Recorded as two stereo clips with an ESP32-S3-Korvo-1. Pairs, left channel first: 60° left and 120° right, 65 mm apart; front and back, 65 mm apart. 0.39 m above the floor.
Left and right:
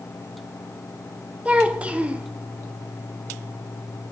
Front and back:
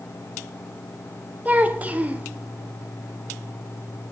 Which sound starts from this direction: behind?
A child speaking, at 1.4 s.